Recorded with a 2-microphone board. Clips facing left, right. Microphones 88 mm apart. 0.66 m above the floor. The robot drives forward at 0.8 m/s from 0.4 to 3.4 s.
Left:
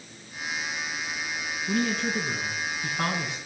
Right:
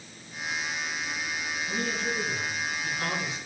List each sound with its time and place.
1.7 s a man speaking: 85° left, 5 m; by 3.4 s 70° left (ahead or behind), 5.5 m